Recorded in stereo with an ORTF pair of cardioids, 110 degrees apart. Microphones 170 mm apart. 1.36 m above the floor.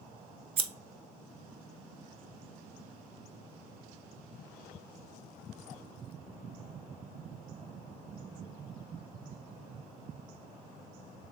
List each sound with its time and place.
0.6 s scissors: 35° right, 0.5 m